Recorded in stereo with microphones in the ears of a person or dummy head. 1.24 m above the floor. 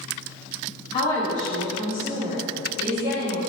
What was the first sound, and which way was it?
A woman speaking, 25° left (ahead or behind).